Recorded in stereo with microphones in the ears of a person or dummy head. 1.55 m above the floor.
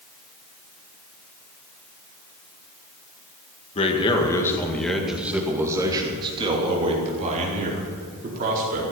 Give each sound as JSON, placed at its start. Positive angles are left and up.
{"t": 3.8, "sound": "a man speaking", "side_deg": 35, "distance_m": 2.0}